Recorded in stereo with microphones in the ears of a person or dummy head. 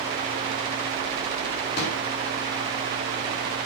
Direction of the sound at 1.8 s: 60° left (ahead or behind).